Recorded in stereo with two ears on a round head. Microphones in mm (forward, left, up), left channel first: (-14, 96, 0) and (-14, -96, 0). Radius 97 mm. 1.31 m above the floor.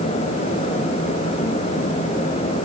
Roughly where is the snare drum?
I don't hear a snare drum.